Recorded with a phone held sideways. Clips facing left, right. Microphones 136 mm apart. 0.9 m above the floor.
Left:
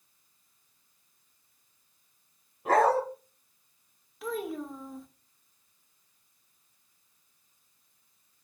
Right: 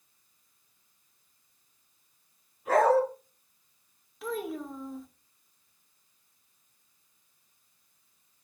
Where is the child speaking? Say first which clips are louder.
Even; centre (ahead or behind), 1.0 m.